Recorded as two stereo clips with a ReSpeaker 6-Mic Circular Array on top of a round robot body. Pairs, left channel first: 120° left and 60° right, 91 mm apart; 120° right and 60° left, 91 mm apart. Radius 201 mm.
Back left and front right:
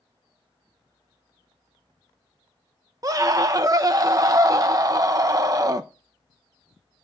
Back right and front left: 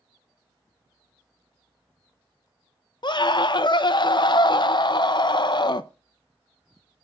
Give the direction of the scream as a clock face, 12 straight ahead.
3 o'clock.